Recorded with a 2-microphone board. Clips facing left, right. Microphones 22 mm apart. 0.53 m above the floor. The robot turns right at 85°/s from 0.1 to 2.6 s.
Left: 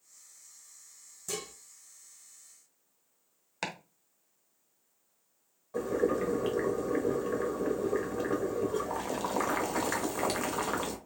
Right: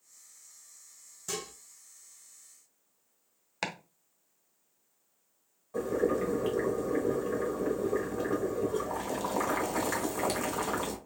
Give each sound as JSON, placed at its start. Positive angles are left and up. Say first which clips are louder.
{"t": 1.3, "sound": "dishes clattering", "louder": "right 1 dB", "side_deg": -30, "distance_m": 2.0}
{"t": 3.6, "sound": "chopping", "louder": "right 1 dB", "side_deg": -15, "distance_m": 0.8}
{"t": 5.7, "sound": "boiling", "louder": "even", "side_deg": 10, "distance_m": 0.9}